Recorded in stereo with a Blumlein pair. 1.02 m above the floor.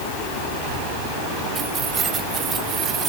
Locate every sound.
1.6 s keys jangling: 25° right